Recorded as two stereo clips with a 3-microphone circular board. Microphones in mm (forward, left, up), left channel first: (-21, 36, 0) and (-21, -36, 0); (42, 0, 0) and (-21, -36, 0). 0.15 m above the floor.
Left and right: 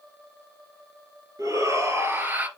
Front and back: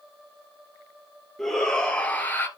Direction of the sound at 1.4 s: 55° right.